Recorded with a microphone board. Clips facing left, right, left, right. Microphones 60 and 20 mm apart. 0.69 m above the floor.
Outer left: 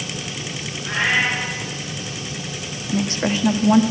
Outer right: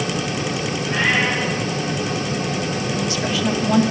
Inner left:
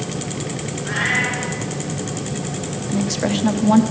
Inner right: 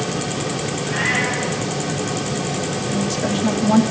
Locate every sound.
0.8 s a cat meowing: 70° left (ahead or behind), 5 m
2.9 s a woman speaking: 35° left (ahead or behind), 0.8 m